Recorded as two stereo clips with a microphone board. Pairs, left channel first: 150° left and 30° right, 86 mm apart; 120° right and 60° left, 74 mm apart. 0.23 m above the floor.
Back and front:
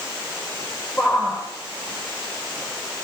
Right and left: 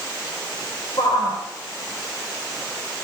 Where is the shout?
115° right, 5.5 m.